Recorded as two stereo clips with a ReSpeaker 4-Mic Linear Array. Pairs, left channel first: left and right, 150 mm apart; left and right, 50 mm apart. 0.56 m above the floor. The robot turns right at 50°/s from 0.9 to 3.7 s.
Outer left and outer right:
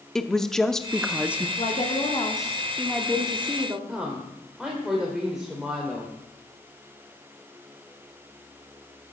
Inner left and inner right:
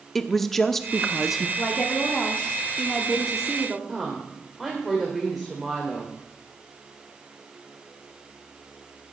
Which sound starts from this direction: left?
A woman speaking, at 1.6 s.